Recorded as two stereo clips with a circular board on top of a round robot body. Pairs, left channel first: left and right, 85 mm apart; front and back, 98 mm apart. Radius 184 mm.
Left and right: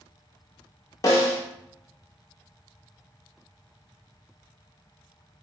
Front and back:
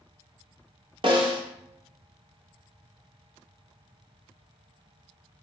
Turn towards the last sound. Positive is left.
turn(degrees=140)